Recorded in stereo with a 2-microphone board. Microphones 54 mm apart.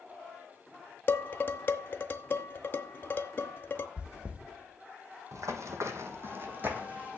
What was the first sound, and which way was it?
Dishes clattering, 40° left (ahead or behind).